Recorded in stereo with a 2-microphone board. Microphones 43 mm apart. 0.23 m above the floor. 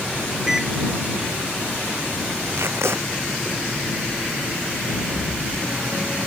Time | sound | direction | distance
0.5 | a microwave | 10° right (ahead or behind) | ?
2.5 | tape being pulled | 85° right | ?